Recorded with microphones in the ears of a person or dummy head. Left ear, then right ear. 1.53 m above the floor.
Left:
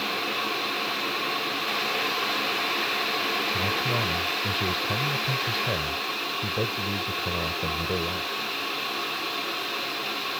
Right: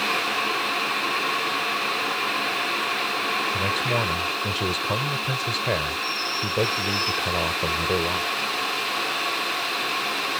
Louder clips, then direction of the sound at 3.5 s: Right 2 dB; 30° right (ahead or behind).